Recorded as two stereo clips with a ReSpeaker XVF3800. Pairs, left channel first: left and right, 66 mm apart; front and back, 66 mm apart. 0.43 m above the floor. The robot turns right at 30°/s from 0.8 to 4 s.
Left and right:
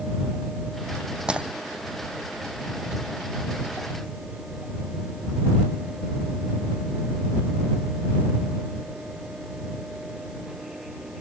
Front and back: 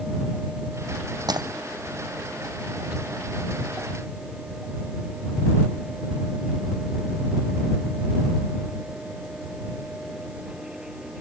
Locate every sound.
1.3 s breaking glass: 165° right; by 1.5 s 160° right